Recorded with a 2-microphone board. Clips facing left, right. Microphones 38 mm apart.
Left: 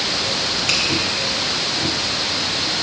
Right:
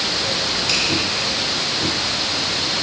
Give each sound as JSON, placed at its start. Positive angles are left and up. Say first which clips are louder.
{"t": 0.7, "sound": "a finger snap", "louder": "left 1 dB", "side_deg": 60, "distance_m": 1.5}